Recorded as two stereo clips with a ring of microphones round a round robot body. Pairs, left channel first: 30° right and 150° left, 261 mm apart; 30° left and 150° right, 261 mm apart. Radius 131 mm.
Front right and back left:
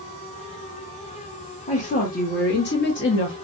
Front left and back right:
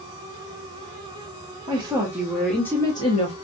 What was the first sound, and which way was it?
A woman speaking, 85° right.